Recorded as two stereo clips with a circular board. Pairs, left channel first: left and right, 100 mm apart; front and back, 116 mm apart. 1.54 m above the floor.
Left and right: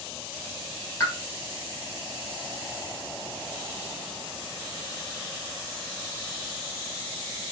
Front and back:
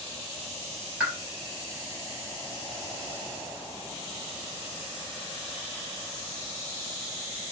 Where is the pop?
105° left, 1.4 m.